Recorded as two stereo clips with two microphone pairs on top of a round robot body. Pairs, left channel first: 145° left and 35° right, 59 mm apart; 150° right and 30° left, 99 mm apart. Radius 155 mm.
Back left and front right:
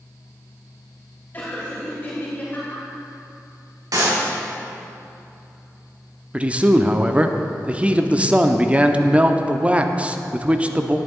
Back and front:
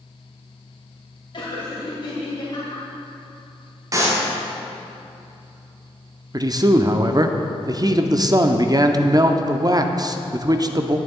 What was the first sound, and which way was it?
Laughter, 160° right.